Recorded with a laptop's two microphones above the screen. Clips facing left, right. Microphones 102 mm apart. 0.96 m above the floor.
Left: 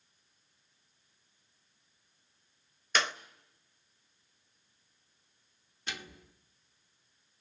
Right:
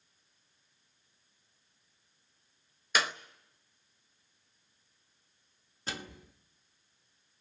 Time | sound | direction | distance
3.0 | a clap | 10° right (ahead or behind) | 0.8 m
5.9 | a microwave | 35° right (ahead or behind) | 0.9 m